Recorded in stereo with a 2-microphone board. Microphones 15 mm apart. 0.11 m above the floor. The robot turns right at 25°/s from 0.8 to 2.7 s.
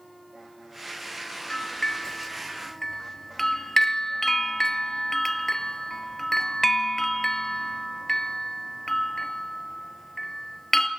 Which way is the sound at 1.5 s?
45° left (ahead or behind).